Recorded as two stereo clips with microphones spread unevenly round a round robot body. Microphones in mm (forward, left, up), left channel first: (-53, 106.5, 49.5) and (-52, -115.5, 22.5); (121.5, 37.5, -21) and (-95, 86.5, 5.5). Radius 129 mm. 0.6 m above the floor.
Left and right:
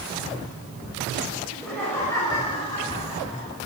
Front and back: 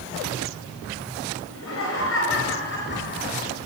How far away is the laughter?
About 3 m.